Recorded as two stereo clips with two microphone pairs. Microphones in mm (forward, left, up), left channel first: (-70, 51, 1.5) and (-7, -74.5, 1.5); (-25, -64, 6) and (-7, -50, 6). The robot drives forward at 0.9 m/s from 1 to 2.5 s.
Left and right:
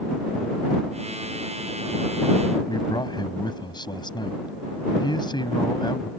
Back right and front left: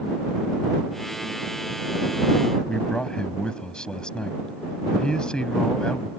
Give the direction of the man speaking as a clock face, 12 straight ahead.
6 o'clock.